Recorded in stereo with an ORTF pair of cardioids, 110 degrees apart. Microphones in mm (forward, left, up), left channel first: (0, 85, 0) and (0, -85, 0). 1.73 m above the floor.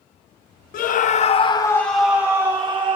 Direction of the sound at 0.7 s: 60° left.